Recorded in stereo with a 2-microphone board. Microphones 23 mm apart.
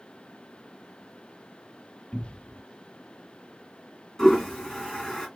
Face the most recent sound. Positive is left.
turn(degrees=20)  # may be behind; listen again after turning